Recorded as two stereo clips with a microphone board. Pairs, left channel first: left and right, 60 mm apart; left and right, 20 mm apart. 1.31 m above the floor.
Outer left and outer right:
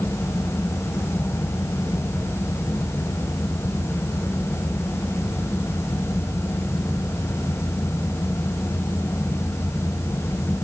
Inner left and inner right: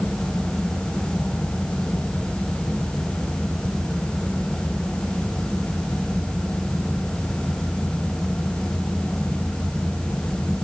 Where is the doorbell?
No doorbell in this recording.